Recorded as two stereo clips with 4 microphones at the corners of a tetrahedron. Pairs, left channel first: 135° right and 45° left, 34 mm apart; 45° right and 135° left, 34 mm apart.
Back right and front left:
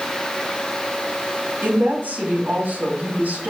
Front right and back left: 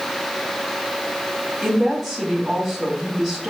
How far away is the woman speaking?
About 4 m.